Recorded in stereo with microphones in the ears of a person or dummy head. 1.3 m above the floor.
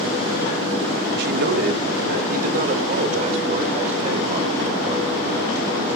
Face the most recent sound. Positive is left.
turn(degrees=-40)  # may be behind; listen again after turning